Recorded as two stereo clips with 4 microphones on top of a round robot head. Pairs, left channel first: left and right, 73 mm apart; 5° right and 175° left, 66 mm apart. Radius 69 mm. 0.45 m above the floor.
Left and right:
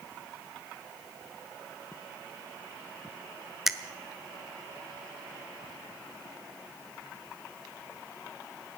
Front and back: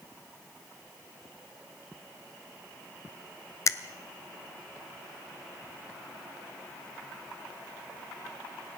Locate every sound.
3.7 s a finger snap: 5° right, 0.7 m